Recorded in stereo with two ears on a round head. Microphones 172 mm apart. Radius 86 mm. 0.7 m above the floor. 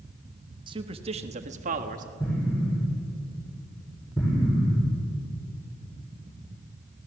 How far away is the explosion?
About 9.5 m.